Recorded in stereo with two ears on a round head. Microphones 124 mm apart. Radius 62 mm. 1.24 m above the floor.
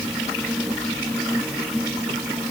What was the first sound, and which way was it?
Only background noise.